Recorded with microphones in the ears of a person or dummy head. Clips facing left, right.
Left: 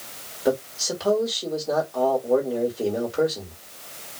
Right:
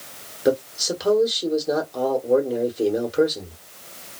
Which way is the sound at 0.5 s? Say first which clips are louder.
Right 3 dB; 15° right (ahead or behind).